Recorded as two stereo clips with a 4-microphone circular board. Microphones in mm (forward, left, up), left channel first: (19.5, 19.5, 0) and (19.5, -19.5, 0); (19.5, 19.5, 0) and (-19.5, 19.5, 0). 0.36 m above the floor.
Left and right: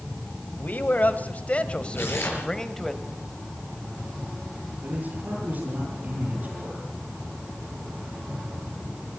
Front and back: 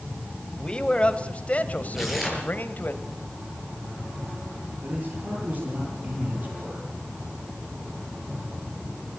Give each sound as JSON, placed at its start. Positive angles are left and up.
{"t": 0.6, "sound": "a man speaking", "azimuth_deg": 65, "distance_m": 1.7}
{"t": 1.9, "sound": "tearing paper", "azimuth_deg": 95, "distance_m": 5.5}
{"t": 4.8, "sound": "a man speaking", "azimuth_deg": -135, "distance_m": 9.5}